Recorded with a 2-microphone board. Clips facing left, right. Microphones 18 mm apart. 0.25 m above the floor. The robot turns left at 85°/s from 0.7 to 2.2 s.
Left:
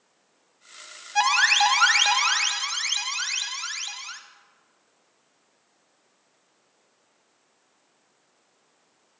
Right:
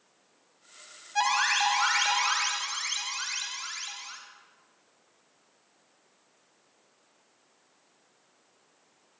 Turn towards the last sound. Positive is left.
turn(degrees=50)